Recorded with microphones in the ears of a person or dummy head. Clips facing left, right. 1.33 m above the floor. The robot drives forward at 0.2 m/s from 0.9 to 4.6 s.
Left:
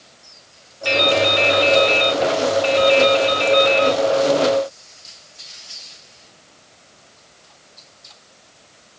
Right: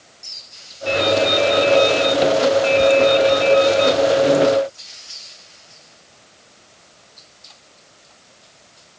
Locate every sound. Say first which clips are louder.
0.8 s dripping: right 1 dB; 75° left (ahead or behind), 0.8 m; by 4.0 s 45° left (ahead or behind), 1.2 m